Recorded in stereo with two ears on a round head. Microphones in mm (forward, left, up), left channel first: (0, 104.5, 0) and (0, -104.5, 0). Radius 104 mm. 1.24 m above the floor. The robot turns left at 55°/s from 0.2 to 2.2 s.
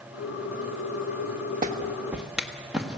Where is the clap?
35° right (ahead or behind), 1.3 m; by 3.0 s 5° right (ahead or behind), 1.3 m.